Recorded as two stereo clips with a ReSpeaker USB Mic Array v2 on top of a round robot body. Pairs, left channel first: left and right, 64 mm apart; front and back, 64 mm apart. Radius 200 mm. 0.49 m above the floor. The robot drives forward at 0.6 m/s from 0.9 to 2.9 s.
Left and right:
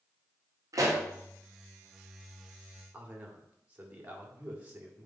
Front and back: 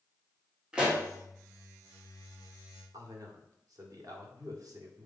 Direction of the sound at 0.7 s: 105° right.